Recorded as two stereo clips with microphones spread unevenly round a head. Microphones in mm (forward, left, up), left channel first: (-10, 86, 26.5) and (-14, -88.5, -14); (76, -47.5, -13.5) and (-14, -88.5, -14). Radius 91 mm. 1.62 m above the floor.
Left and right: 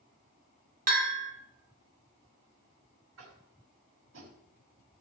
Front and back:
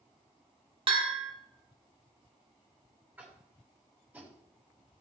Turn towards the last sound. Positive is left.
turn(degrees=-80)